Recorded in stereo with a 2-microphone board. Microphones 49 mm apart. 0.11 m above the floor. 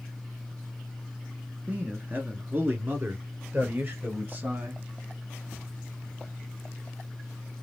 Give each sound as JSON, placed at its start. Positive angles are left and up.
{"t": 1.7, "sound": "a man speaking", "side_deg": -30, "distance_m": 1.4}